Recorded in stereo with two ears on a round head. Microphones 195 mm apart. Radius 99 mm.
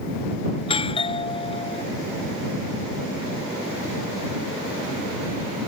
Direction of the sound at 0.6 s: 25° left (ahead or behind).